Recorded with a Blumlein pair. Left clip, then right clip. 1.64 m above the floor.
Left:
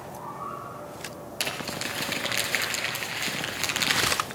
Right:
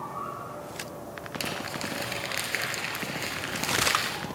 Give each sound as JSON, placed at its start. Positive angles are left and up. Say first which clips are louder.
{"t": 1.4, "sound": "crumpling", "louder": "left 3 dB", "azimuth_deg": 10, "distance_m": 5.0}